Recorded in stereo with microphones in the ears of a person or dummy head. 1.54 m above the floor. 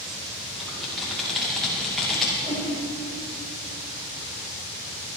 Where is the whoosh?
15° right (ahead or behind), 5 m.